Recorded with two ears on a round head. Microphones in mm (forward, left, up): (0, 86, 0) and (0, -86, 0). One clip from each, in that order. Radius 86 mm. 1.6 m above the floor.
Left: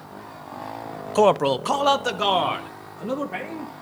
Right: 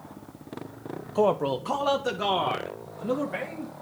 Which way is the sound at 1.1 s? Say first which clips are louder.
Left 6 dB; 55° left (ahead or behind).